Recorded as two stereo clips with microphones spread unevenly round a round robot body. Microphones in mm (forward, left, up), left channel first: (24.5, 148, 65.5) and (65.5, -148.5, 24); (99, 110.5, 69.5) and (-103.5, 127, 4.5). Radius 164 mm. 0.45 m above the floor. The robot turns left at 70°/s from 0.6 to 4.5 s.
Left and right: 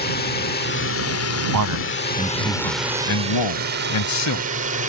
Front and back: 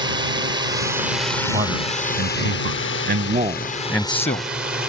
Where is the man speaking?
110° right; by 4.5 s 40° left.